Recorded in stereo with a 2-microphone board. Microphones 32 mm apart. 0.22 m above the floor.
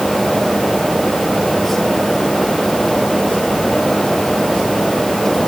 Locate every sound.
Only background noise.